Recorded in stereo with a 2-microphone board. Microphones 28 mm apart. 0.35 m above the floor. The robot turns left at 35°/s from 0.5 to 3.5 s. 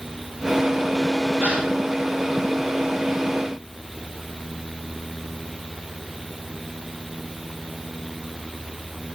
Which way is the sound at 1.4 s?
70° right (ahead or behind).